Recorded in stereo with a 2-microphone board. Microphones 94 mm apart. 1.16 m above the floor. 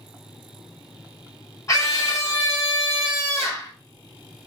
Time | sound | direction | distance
1.7 | a scream | 30° left (ahead or behind) | 1.4 m